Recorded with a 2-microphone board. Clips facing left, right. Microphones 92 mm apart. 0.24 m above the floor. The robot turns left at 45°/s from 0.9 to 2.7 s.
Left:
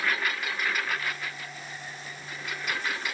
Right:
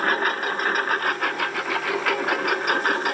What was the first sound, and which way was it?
A lawn mower, 45° right.